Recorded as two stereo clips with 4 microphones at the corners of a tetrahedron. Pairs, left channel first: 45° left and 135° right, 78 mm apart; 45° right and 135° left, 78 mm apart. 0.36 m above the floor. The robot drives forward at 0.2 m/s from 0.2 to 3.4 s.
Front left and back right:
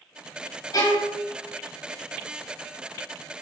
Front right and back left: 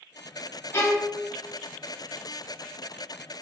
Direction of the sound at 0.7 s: 10° left.